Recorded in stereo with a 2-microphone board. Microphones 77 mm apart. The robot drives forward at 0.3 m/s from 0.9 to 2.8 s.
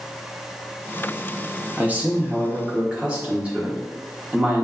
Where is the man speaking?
20° right (ahead or behind), 0.7 m; by 4.6 s 15° right (ahead or behind), 0.9 m.